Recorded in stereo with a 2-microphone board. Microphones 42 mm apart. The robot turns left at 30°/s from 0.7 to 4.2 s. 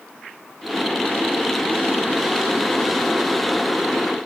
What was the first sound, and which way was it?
Only background noise.